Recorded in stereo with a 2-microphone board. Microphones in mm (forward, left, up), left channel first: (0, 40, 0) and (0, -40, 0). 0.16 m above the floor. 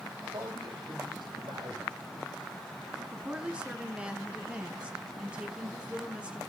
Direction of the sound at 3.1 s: 15° right (ahead or behind).